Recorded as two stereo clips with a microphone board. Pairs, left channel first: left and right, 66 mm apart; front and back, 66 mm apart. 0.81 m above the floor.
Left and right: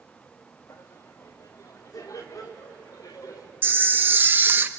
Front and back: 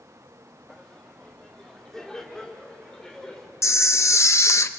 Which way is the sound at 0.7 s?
85° left.